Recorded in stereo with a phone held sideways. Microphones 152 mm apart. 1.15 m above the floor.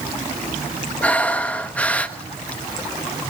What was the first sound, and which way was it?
Breathing, 10° left (ahead or behind).